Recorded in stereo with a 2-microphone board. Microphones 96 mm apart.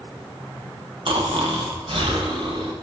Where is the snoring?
65° right (ahead or behind), 0.7 m.